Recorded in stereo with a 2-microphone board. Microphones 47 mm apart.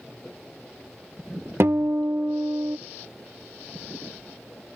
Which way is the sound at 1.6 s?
60° right (ahead or behind).